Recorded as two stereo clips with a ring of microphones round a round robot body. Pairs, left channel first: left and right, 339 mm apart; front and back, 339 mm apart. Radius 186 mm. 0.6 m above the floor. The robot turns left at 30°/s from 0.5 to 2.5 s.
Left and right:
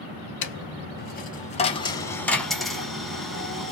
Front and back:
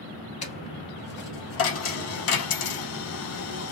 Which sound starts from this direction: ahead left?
A dropped coin, at 0.4 s.